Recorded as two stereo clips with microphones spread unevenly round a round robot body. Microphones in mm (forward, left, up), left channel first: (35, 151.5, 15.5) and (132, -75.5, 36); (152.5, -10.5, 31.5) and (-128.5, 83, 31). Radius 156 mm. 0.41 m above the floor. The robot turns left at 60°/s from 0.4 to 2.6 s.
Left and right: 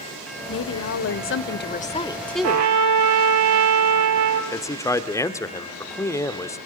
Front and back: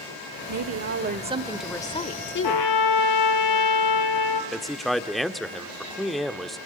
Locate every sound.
0.5 s a woman speaking: 140° left, 1.2 m; by 2.7 s 15° left, 1.2 m
2.4 s a trumpet: 45° right, 1.6 m; by 4.4 s 55° right, 1.6 m
4.5 s a man speaking: 70° left, 1.1 m